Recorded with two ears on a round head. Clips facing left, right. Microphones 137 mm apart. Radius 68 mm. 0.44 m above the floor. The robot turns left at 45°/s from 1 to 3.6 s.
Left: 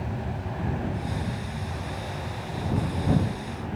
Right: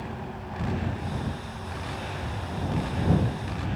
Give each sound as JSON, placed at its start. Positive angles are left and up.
{"t": 0.0, "sound": "an aircraft", "azimuth_deg": 70}